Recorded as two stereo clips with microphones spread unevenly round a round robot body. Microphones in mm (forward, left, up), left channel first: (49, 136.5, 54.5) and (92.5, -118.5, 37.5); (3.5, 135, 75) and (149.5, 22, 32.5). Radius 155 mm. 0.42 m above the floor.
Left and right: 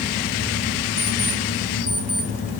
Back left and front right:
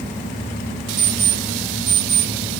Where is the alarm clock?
30° right, 1.7 m.